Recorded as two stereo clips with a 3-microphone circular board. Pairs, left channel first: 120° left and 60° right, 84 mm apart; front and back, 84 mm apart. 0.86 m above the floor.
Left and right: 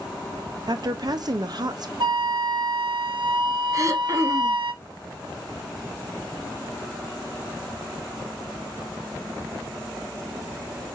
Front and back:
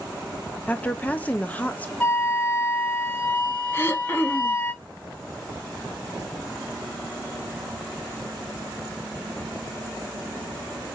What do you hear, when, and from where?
0.7 s a woman speaking: 70° right, 0.6 m
2.0 s a flute: 70° right, 1.6 m
3.7 s throat clearing: 45° right, 0.6 m